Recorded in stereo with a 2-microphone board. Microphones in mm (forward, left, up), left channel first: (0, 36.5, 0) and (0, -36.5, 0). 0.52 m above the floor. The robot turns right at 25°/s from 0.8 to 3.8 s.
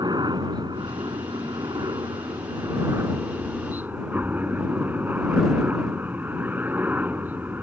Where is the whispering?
I don't hear whispering.